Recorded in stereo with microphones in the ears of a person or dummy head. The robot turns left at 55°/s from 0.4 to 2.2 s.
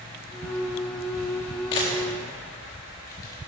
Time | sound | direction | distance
1.7 | a camera shutter | 30° left (ahead or behind) | 1.3 m